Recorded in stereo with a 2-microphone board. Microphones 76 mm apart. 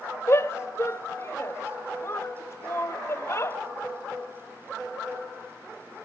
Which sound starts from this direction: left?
A shout, at 0.3 s.